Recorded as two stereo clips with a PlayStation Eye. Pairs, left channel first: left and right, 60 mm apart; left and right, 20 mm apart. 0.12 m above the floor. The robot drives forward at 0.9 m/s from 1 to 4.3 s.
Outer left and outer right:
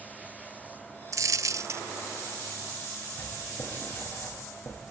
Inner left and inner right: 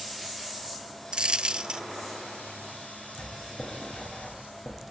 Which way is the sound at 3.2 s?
35° left (ahead or behind).